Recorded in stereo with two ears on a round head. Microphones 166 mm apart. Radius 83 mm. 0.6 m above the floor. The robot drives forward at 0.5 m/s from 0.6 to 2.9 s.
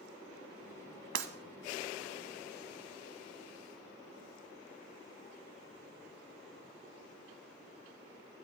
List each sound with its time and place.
1.1 s breaking glass: 70° right (ahead or behind), 1.2 m; by 1.3 s 75° right (ahead or behind), 1.2 m